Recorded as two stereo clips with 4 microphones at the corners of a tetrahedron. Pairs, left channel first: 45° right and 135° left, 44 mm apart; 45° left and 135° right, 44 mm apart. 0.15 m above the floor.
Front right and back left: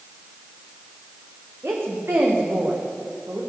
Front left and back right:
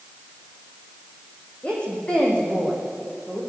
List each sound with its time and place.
1.6 s a woman speaking: 110° left, 8 m